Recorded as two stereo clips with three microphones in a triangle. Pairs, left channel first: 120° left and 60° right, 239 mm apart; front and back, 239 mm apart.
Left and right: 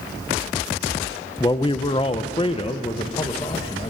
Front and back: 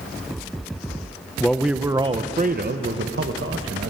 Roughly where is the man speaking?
Left.